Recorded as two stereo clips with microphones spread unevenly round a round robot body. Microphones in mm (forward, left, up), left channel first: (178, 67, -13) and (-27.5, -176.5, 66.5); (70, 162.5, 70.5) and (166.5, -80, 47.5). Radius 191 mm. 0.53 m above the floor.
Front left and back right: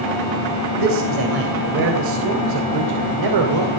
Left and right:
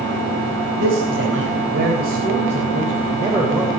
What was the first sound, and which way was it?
A man speaking, 110° right.